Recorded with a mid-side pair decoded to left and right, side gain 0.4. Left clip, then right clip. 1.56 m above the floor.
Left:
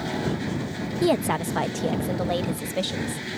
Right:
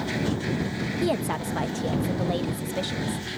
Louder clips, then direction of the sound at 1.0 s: Left 5 dB; 40° left.